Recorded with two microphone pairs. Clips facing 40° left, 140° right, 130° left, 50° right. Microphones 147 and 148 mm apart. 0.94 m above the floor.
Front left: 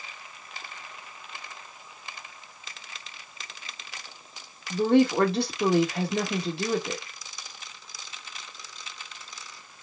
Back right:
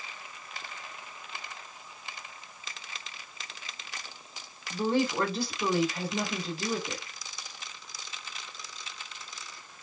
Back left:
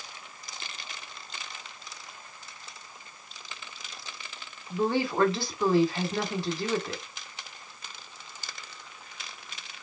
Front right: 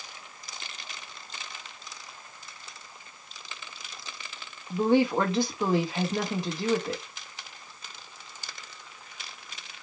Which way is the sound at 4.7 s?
20° left.